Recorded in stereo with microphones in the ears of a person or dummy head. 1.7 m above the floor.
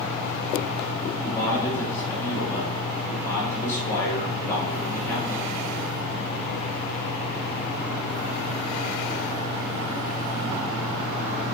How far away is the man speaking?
About 3 m.